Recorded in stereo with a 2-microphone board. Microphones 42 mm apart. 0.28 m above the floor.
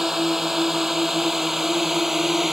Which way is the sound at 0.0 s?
10° right (ahead or behind).